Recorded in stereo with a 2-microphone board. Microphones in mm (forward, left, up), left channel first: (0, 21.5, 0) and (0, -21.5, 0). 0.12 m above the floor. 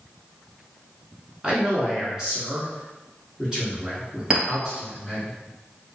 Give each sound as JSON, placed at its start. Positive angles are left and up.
{"t": 1.4, "sound": "a man speaking", "side_deg": -20, "distance_m": 1.1}
{"t": 4.3, "sound": "a clink", "side_deg": -20, "distance_m": 1.6}